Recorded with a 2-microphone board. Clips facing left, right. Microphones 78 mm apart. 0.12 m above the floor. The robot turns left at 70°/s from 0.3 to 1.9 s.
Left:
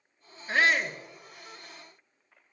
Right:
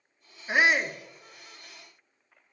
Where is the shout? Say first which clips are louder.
Right 1 dB; 145° right, 1.3 m; by 1.0 s straight behind, 1.3 m.